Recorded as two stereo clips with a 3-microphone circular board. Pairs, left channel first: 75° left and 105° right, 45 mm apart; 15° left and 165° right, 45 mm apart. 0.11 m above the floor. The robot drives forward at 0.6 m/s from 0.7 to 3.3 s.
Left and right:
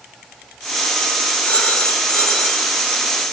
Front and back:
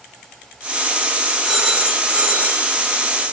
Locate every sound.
1.4 s a phone ringing: 115° left, 1.0 m; by 2.8 s 150° left, 1.4 m